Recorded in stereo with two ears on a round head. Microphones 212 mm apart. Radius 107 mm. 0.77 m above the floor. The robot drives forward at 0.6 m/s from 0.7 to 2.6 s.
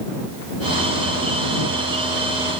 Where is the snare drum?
I don't hear a snare drum.